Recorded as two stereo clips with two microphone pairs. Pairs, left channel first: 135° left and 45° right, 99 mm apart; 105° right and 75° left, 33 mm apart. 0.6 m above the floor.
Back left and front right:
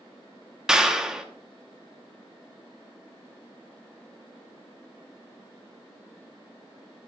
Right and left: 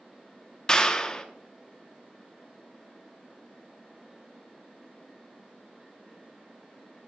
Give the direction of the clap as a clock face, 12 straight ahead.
4 o'clock.